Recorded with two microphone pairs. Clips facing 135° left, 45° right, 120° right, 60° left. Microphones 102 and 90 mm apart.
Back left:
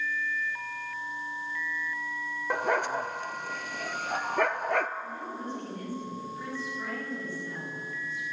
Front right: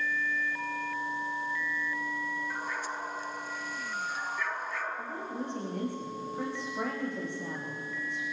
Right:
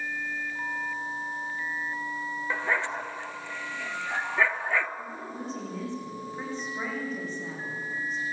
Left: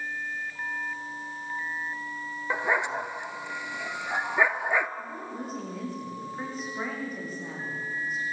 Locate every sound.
2.5 s a dog barking: 130° left, 1.0 m
5.0 s a woman speaking: 25° right, 9.5 m